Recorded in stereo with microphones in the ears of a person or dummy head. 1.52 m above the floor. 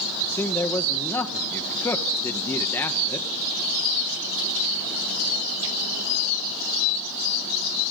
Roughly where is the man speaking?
Centre.